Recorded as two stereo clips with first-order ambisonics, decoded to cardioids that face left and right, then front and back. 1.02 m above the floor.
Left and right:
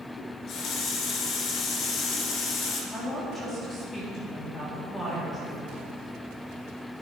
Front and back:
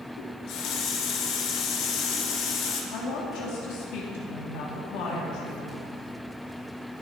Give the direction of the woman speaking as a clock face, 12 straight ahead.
12 o'clock.